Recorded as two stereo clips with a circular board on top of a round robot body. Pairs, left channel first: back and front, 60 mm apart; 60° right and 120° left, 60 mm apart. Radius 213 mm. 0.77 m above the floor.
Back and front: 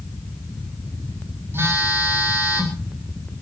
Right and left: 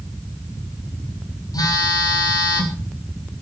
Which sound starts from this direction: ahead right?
A phone buzzing, at 1.5 s.